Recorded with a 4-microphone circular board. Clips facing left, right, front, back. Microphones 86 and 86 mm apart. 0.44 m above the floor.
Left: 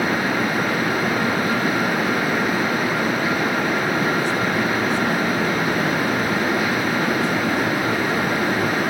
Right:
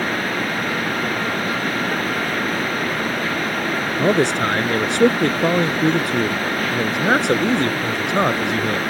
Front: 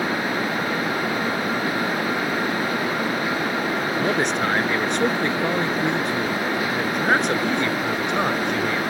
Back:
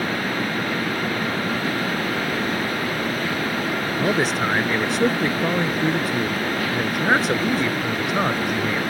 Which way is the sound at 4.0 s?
95° right.